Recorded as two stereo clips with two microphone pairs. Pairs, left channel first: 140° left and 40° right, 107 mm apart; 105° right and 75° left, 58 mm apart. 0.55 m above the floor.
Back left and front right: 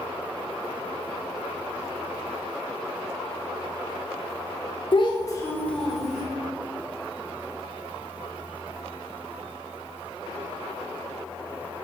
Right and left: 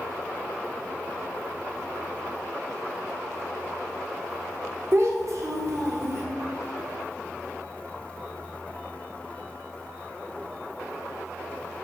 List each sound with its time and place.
4.9 s a child speaking: 110° left, 0.7 m; by 6.2 s 40° left, 1.0 m